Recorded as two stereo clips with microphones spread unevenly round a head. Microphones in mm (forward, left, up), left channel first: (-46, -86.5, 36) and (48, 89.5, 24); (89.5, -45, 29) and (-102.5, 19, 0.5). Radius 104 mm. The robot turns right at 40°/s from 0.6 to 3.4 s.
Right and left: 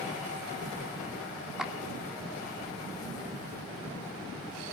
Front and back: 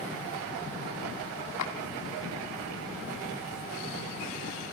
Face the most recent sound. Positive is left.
turn(degrees=45)